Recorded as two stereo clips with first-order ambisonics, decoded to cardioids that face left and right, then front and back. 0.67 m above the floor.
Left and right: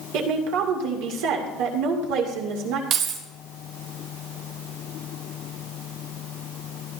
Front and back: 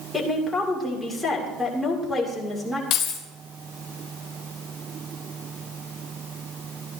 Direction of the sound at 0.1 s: 85° right.